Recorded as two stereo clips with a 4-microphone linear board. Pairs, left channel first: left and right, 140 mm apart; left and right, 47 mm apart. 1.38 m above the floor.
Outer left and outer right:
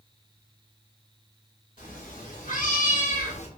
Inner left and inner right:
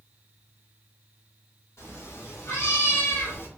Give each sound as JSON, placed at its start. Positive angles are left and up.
{"t": 1.8, "sound": "a cat meowing", "side_deg": 65, "distance_m": 1.9}